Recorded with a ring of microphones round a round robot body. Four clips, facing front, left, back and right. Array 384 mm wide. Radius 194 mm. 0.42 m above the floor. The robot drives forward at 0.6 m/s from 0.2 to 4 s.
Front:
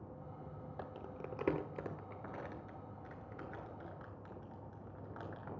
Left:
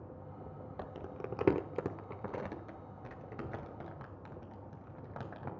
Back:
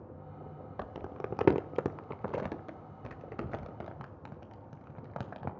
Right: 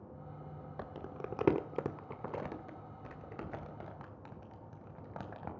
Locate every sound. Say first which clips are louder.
0.8 s crumpling: even, back 8 dB; 175° right, 0.9 m; by 5.5 s straight behind, 2.5 m